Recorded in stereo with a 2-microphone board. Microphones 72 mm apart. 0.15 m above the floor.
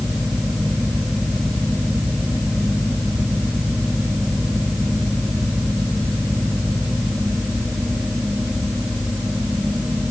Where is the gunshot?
I don't hear a gunshot.